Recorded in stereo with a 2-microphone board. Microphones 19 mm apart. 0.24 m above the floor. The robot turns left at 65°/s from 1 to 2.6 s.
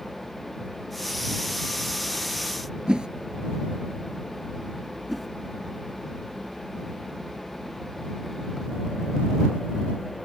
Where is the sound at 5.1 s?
5° right (ahead or behind).